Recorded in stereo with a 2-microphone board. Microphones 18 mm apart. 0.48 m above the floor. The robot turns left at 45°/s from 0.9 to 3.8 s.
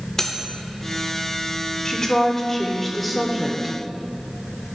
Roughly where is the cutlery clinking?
Left.